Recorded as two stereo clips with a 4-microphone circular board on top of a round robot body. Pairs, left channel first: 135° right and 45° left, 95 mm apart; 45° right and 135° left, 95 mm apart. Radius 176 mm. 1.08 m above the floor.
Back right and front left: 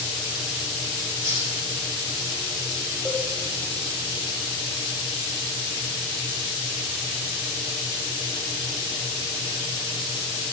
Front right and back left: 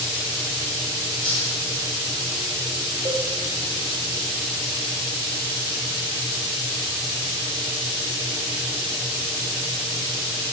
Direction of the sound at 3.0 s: 115° left.